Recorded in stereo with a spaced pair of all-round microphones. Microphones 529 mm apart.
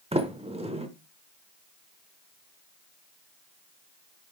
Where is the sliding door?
10° right (ahead or behind), 0.7 m.